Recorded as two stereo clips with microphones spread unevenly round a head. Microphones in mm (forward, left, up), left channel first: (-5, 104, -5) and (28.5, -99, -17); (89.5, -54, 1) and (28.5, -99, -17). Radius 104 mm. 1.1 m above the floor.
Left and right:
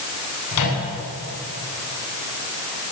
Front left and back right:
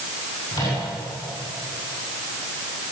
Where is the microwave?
105° left, 9.5 m.